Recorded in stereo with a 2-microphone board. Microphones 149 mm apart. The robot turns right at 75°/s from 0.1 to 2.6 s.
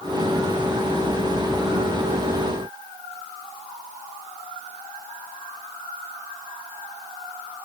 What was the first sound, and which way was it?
Only background noise.